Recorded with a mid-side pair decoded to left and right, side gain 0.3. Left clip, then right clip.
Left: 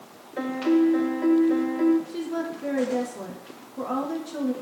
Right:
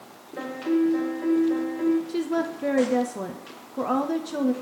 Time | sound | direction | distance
0.4 | a piano | 50° left | 1.1 m
2.1 | a woman speaking | 65° right | 0.6 m